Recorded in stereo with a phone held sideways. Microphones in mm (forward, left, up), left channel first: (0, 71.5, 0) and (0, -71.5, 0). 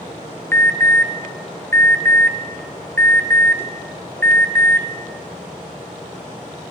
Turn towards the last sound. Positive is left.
turn(degrees=15)  # may be behind; listen again after turning